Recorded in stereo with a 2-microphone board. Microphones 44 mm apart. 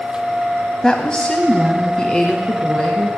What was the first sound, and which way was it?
A woman speaking, 20° left (ahead or behind).